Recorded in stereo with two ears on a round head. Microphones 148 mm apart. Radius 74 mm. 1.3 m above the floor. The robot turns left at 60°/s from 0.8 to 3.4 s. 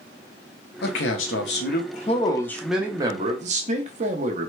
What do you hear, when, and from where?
0.8 s a man speaking: 110° left, 0.6 m; by 4.5 s 45° right, 0.6 m